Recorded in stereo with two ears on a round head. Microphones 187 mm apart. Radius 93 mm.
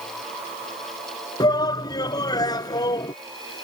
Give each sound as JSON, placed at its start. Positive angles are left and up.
{"t": 1.4, "sound": "a shout", "side_deg": 20}